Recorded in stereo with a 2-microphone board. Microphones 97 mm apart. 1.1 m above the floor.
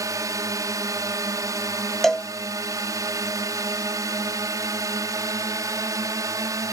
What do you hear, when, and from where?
0.0 s a drone: 35° right (ahead or behind)
2.0 s a cowbell: 5° left (ahead or behind)